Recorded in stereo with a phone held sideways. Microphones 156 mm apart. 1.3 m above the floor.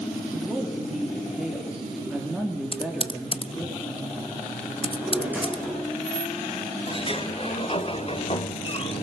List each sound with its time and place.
0.3 s a woman speaking: 5° right (ahead or behind), 3.5 m
2.7 s typing on a keyboard: 40° left (ahead or behind), 0.8 m
4.8 s a drawer: 15° right (ahead or behind), 8.5 m
6.9 s a sliding door: 40° left (ahead or behind), 1.2 m